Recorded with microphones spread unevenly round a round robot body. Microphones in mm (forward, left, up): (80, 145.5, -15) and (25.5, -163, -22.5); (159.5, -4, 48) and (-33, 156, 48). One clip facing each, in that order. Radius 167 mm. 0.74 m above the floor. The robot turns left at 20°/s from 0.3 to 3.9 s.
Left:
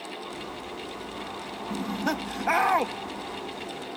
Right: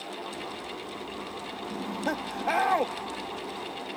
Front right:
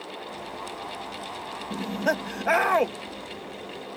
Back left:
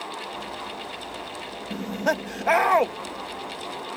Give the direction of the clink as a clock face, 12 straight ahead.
I don't hear a clink.